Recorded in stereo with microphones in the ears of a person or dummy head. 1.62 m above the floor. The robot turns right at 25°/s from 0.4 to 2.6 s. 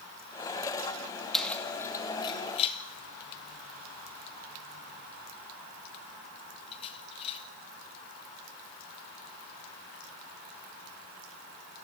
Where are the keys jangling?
Centre (ahead or behind), 2 m; by 7.4 s 30° left (ahead or behind), 2 m.